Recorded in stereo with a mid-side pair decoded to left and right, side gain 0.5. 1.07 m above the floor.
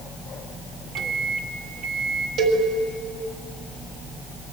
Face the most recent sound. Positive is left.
turn(degrees=-65)